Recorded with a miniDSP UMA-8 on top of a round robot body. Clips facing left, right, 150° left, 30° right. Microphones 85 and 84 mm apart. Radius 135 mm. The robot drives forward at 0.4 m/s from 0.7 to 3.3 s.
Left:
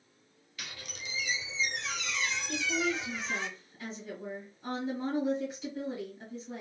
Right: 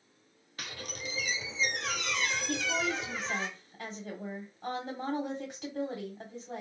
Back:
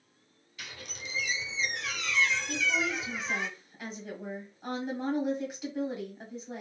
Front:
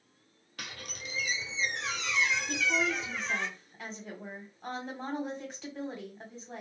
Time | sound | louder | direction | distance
0.6 | a squeak | right 4 dB, front 1 dB | 50° right | 0.9 m
2.5 | a woman speaking | left 2 dB, front 1 dB | 120° right | 1.3 m